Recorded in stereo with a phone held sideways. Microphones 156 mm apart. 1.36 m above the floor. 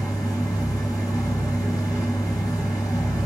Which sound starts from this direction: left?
A machine running, at 0.0 s.